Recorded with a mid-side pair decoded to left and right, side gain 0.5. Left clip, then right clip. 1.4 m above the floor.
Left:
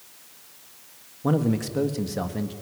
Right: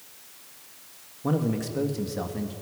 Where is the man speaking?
25° left, 1.6 m.